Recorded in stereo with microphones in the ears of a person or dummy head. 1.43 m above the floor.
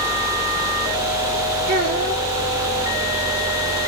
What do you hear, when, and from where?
1.7 s a child speaking: 35° right (ahead or behind), 1.4 m